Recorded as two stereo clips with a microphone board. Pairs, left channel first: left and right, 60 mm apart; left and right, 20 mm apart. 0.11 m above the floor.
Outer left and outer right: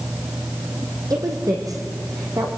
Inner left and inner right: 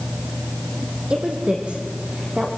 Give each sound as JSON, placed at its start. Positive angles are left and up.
{"t": 1.1, "sound": "a woman speaking", "side_deg": -70, "distance_m": 4.0}